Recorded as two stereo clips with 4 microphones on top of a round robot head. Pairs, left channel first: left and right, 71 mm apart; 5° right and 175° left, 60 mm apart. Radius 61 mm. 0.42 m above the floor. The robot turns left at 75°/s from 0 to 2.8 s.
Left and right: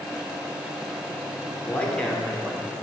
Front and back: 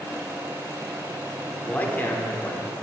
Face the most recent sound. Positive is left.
turn(degrees=-40)